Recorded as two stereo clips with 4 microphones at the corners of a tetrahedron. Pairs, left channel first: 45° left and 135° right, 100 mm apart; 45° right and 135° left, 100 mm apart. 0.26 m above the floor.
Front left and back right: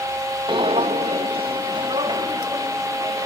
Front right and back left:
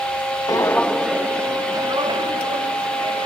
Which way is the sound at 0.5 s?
95° right.